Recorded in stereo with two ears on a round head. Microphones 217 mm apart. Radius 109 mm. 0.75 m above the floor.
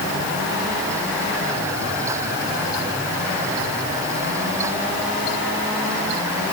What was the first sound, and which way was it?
Only background noise.